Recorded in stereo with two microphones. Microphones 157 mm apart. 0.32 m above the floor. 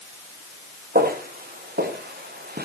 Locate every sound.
0.9 s footsteps: 70° right (ahead or behind), 4.5 m; by 2.6 s 75° right (ahead or behind), 3 m